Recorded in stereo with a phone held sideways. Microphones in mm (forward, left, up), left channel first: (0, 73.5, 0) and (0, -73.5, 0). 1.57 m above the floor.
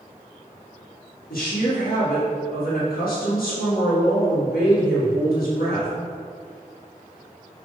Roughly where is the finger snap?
I don't hear a finger snap.